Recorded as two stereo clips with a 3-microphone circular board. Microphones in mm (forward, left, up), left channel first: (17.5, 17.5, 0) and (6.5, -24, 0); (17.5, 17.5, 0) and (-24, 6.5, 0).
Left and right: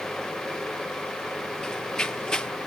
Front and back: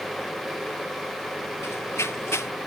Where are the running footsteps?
Straight ahead.